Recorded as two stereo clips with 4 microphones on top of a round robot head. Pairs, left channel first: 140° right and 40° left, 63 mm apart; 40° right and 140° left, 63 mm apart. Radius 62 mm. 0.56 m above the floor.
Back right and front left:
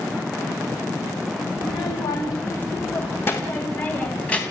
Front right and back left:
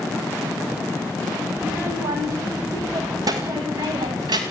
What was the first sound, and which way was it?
A child speaking, 165° right.